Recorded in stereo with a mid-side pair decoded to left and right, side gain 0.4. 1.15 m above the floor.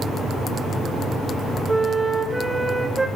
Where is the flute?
10° right, 1.1 m.